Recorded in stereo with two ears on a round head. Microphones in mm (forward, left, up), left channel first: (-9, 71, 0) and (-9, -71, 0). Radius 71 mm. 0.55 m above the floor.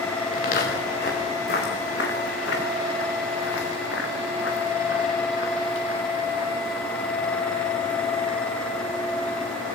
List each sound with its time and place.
0.3 s footsteps: 60° left (ahead or behind), 7 m; by 8.0 s 55° left (ahead or behind), 6 m